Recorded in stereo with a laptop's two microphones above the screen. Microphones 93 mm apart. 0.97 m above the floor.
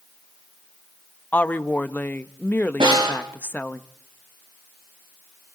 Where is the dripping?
I don't hear dripping.